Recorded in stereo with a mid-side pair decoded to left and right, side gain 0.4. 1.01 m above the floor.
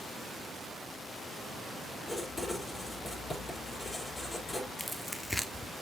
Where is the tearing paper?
10° left, 1.1 m.